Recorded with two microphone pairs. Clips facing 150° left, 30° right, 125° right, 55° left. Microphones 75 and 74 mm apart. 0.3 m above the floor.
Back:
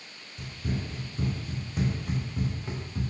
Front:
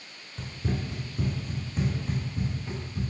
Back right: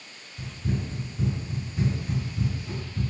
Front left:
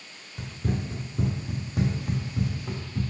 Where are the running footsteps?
25° left, 0.9 m; by 3.0 s 90° left, 1.5 m.